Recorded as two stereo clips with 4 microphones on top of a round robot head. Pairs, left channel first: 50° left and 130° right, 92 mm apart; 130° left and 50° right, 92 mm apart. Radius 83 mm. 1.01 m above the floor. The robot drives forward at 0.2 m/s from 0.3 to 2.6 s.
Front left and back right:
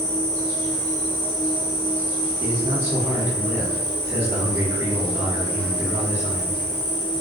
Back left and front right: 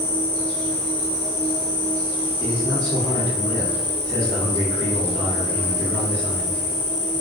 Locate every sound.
0.0 s an insect: 105° left, 1.3 m; by 7.2 s 125° left, 1.5 m
2.4 s a man speaking: 165° left, 1.2 m